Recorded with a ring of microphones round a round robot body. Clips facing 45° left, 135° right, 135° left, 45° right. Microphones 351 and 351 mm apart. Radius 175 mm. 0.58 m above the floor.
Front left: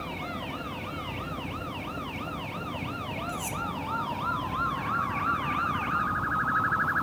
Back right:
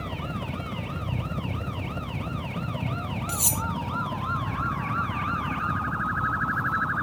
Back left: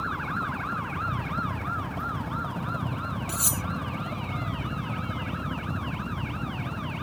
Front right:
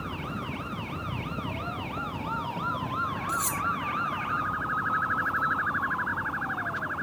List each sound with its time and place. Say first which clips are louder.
0.0 s a helicopter: back right 2 dB, back left 1 dB; 140° right; by 7.0 s 160° left
3.3 s cutlery clinking: back right 3 dB, back left 2 dB; 155° right